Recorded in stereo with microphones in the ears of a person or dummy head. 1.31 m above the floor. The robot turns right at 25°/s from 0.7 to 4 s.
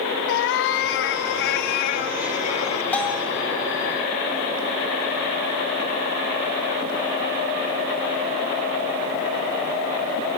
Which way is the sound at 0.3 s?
95° left.